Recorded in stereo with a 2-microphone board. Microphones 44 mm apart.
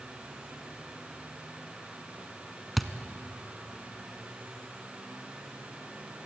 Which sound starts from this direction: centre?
A thud, at 2.8 s.